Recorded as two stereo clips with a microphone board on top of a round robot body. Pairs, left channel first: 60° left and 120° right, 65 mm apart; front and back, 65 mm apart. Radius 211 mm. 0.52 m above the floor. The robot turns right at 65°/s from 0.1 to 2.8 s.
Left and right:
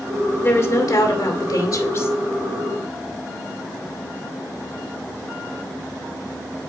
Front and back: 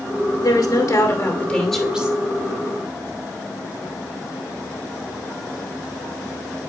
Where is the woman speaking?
5° left, 2.5 m; by 2.2 s 115° left, 2.5 m.